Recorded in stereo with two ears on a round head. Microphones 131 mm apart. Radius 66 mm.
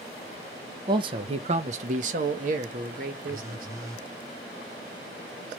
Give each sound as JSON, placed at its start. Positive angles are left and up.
{"t": 0.9, "sound": "a man speaking", "side_deg": -30, "distance_m": 0.8}
{"t": 3.3, "sound": "a phone buzzing", "side_deg": -20, "distance_m": 1.0}